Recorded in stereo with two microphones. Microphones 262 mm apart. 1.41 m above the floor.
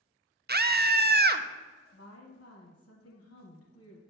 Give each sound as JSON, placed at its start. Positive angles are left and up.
{"t": 0.5, "sound": "a scream", "side_deg": -40, "distance_m": 0.5}
{"t": 1.9, "sound": "a woman speaking", "side_deg": 65, "distance_m": 1.1}